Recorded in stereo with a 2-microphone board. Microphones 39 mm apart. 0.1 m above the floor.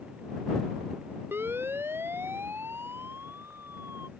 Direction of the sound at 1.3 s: 70° right (ahead or behind).